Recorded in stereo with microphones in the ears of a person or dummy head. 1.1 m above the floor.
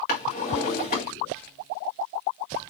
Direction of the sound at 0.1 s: 35° left (ahead or behind).